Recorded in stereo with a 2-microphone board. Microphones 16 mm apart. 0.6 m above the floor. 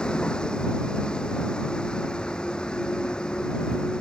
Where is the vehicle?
70° left (ahead or behind).